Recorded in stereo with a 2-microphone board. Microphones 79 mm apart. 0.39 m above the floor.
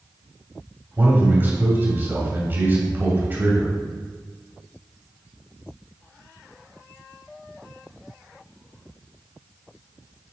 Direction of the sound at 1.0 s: 25° right (ahead or behind).